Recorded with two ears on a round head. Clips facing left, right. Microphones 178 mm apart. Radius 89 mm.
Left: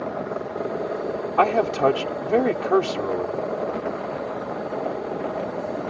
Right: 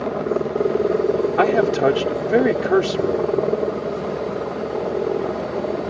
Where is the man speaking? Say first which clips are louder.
Even; 15° right (ahead or behind).